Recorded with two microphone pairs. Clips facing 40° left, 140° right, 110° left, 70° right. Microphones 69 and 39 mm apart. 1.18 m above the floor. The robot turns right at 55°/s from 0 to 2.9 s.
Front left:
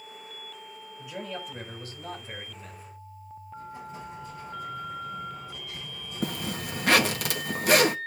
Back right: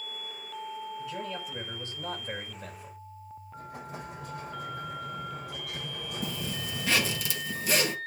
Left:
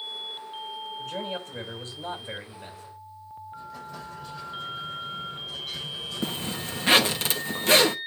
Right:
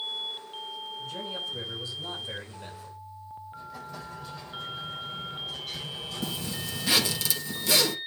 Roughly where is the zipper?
Ahead left.